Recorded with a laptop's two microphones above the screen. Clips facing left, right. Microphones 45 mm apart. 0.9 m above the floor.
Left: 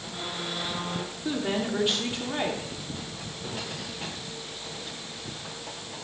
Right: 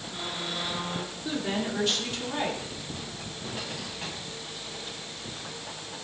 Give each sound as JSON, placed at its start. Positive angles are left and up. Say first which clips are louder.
{"t": 1.2, "sound": "a woman speaking", "louder": "left 2 dB", "side_deg": 20, "distance_m": 2.0}